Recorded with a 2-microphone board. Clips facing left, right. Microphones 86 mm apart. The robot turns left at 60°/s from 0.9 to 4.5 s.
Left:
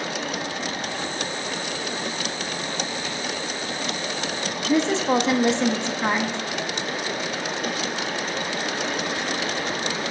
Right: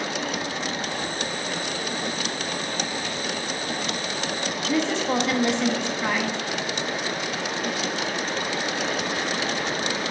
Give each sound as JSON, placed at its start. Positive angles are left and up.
{"t": 4.7, "sound": "a woman speaking", "side_deg": 25, "distance_m": 0.9}